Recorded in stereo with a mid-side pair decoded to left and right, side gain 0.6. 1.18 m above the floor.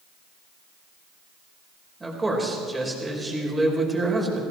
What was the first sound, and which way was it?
A man speaking, 15° right.